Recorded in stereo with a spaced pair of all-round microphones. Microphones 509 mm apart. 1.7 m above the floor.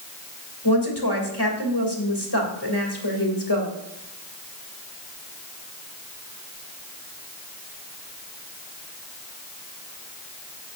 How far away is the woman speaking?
About 3 m.